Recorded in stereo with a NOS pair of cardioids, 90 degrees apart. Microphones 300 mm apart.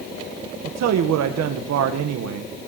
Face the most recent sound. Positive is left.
turn(degrees=-70)